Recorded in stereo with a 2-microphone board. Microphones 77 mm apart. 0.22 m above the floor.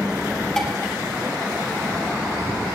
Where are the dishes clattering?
10° left (ahead or behind), 3.5 m.